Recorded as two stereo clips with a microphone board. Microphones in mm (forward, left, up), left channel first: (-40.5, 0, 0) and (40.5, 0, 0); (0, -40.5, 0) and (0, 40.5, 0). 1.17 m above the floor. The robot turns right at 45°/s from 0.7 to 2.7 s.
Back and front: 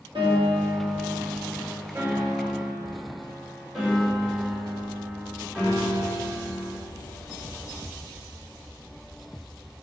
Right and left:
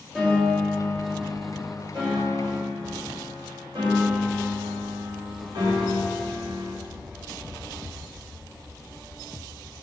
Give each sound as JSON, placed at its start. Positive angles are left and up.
{"t": 0.1, "sound": "a piano", "azimuth_deg": -5, "distance_m": 1.7}